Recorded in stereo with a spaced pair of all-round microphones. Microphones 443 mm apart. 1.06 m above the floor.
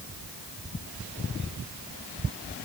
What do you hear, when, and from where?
Only background noise.